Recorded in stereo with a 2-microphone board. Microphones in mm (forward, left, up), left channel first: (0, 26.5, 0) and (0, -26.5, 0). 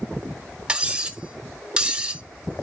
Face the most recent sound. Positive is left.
turn(degrees=-15)  # may be behind; listen again after turning